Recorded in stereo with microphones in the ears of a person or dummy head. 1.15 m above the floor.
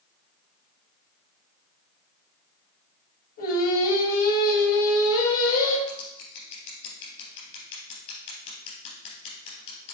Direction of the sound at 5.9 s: 65° left (ahead or behind).